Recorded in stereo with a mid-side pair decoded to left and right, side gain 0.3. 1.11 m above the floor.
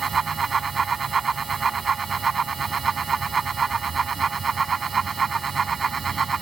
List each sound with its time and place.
0.0 s a fan: 50° right